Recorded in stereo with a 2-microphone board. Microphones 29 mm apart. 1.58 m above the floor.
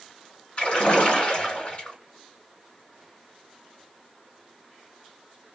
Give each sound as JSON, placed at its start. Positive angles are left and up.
{"t": 0.6, "sound": "a splash", "side_deg": 40, "distance_m": 1.8}